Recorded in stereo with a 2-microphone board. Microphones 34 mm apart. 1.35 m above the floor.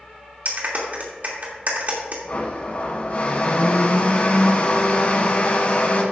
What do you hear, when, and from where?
0.5 s a clap: 50° right (ahead or behind), 2.5 m
2.3 s a blender: 45° left (ahead or behind), 1.8 m